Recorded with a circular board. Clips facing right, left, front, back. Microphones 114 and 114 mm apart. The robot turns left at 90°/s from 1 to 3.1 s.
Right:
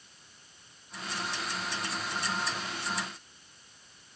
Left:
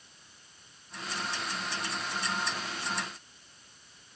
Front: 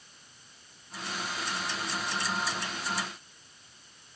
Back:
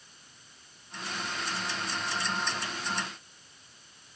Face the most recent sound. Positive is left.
No sound to turn to.